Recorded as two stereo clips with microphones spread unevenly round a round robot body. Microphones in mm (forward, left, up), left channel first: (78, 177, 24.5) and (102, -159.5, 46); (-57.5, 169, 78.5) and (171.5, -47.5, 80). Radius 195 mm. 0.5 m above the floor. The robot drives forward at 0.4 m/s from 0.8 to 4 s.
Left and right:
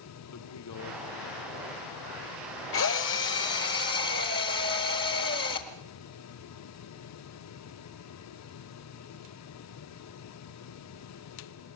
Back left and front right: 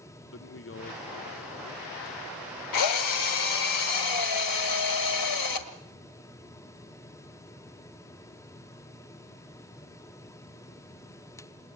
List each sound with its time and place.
0.3 s a man speaking: 100° left, 1.3 m; by 1.8 s 120° left, 1.4 m
2.7 s a drill: 150° left, 1.3 m; by 5.7 s 160° left, 1.7 m